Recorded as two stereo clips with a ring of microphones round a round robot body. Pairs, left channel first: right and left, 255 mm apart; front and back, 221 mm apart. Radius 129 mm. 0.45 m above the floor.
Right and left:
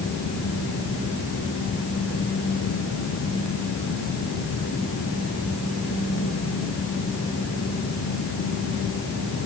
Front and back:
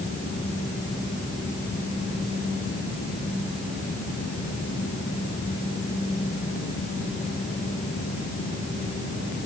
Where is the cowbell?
No cowbell in this recording.